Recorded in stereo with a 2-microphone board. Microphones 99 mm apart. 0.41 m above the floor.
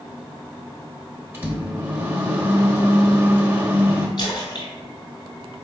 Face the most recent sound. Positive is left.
turn(degrees=55)  # may be behind; listen again after turning